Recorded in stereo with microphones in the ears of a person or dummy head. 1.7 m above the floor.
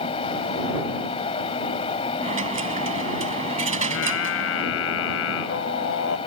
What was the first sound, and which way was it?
A fan, 25° left (ahead or behind).